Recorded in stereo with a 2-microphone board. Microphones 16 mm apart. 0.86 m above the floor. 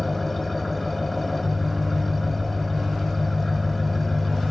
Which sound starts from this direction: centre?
An engine running, at 0.0 s.